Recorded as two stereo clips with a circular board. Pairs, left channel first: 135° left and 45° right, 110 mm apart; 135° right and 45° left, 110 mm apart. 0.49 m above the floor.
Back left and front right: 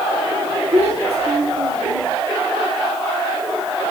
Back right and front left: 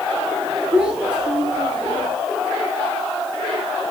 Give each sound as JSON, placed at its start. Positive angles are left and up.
{"t": 0.7, "sound": "a child speaking", "azimuth_deg": -30, "distance_m": 5.0}